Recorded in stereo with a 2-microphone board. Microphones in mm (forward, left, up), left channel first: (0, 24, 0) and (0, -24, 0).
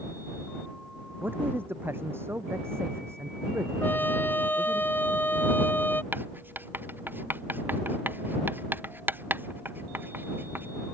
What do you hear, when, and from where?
1.2 s a man speaking: 45° right (ahead or behind); by 4.8 s 75° right (ahead or behind)
3.8 s a trumpet: 45° left (ahead or behind)
6.1 s writing: 45° right (ahead or behind)